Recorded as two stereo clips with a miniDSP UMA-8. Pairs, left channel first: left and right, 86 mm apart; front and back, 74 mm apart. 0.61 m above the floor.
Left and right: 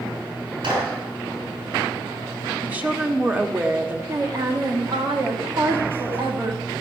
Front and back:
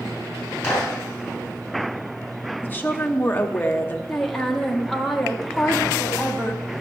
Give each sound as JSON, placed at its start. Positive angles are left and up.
{"t": 0.6, "sound": "a clap", "azimuth_deg": -75, "distance_m": 4.5}
{"t": 2.6, "sound": "a woman speaking", "azimuth_deg": -35, "distance_m": 1.0}
{"t": 4.1, "sound": "a woman speaking", "azimuth_deg": -80, "distance_m": 1.3}